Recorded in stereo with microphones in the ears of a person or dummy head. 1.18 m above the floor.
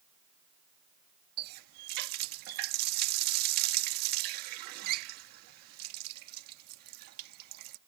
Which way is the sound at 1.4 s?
65° right (ahead or behind).